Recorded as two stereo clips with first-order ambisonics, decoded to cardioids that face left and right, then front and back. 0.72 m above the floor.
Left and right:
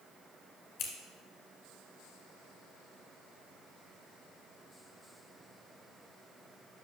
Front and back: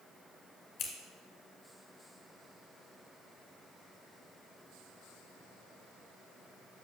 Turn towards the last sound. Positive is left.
turn(degrees=50)